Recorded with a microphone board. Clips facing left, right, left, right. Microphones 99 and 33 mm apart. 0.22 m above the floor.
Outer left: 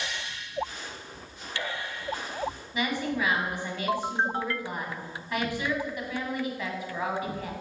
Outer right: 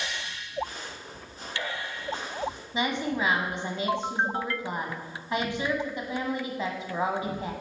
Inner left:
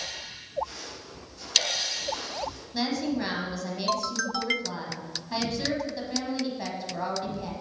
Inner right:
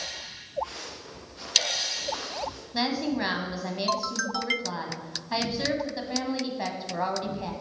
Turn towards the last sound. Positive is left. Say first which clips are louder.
# outer right 1 dB, inner right 1 dB
turn(degrees=-25)  # may be behind; listen again after turning